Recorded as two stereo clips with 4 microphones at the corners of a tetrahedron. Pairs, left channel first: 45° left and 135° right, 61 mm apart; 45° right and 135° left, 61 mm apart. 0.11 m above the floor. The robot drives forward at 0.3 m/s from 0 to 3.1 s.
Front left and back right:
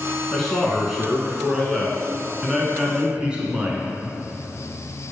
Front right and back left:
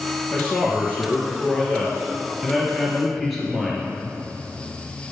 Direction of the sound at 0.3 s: 40° right.